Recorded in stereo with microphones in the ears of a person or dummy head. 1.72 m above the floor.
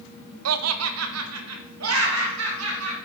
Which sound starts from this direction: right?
Laughter, at 0.5 s.